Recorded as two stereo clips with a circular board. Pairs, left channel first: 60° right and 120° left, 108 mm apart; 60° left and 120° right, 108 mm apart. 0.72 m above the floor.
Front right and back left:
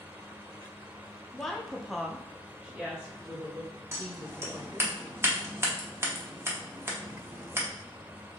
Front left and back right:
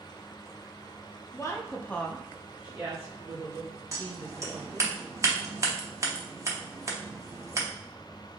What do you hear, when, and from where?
1.3 s a woman speaking: 25° left, 0.7 m; by 4.9 s 160° right, 1.5 m
3.9 s scissors: 175° right, 0.9 m